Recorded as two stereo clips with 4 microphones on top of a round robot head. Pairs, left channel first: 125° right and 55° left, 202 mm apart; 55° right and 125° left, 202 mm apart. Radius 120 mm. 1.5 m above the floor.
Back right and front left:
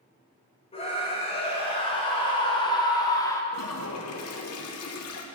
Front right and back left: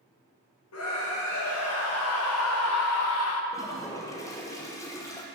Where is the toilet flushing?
130° right, 0.7 m.